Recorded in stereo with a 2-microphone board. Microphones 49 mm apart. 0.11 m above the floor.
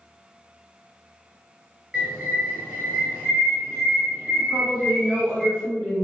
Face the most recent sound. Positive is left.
turn(degrees=-15)  # may be behind; listen again after turning